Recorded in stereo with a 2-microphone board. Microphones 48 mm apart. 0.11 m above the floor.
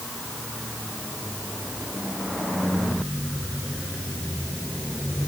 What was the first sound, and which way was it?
Only background noise.